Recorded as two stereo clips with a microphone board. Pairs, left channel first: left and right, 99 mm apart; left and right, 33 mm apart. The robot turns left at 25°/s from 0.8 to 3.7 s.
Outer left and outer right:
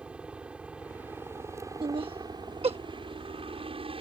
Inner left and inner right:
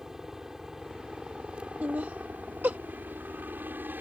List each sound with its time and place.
0.0 s a helicopter: 10° right; by 4.0 s 85° right
1.8 s laughter: 55° right (ahead or behind); by 2.8 s 80° right